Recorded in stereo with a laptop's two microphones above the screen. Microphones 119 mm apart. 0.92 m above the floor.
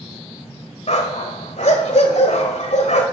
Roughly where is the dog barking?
Left.